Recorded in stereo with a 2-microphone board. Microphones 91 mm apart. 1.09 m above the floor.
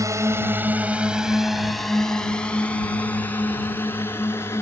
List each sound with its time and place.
0.0 s a drone: 35° right (ahead or behind); by 4.6 s 25° left (ahead or behind)